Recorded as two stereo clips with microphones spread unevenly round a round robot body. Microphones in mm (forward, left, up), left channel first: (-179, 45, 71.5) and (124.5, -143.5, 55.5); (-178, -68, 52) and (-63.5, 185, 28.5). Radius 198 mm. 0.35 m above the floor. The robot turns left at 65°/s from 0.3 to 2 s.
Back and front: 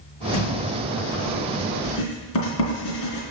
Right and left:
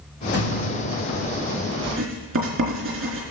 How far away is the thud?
About 5 m.